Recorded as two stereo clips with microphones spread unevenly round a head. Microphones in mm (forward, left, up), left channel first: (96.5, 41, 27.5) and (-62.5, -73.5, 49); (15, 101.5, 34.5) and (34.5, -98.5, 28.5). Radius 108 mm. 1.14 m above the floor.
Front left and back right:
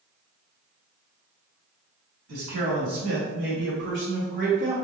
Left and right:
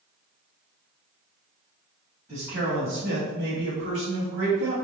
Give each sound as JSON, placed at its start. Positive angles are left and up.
{"t": 2.3, "sound": "a man speaking", "azimuth_deg": -160, "distance_m": 1.8}